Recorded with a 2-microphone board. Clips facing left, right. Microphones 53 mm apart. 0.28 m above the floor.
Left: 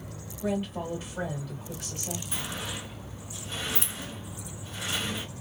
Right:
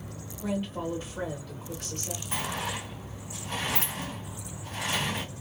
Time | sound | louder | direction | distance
0.4 | a woman speaking | left 1 dB | centre (ahead or behind) | 1.4 m
2.3 | a sliding door | right 4 dB | 50° right (ahead or behind) | 1.9 m